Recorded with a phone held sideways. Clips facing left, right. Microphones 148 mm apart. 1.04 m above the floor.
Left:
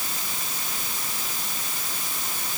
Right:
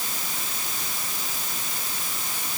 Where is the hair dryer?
I don't hear a hair dryer.